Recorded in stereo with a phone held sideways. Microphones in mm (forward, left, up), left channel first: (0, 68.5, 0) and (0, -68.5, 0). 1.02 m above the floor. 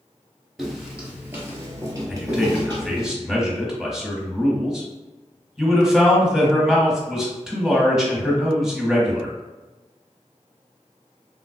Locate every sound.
0.6 s footsteps: centre (ahead or behind), 1.0 m; by 3.1 s 35° right (ahead or behind), 1.5 m
2.1 s a man speaking: 5° right (ahead or behind), 1.1 m